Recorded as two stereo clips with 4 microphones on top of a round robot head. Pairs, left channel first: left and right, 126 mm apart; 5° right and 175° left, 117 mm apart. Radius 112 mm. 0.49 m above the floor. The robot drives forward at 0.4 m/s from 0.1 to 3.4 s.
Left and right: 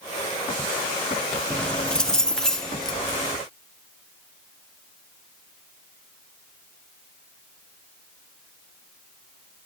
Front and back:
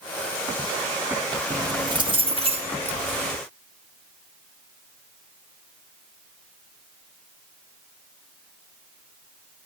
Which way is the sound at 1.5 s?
165° left.